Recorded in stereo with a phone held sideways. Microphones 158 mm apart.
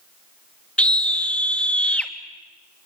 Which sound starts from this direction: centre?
A scream, at 0.8 s.